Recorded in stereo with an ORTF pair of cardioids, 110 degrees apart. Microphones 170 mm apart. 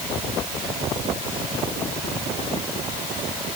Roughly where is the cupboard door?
No cupboard door in this recording.